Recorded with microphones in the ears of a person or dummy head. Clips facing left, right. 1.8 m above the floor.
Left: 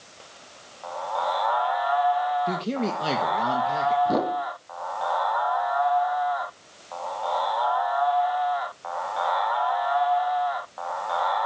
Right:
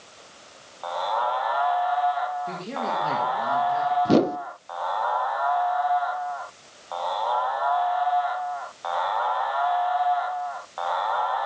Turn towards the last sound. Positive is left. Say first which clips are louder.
# right 5 dB
turn(degrees=-40)  # may be behind; listen again after turning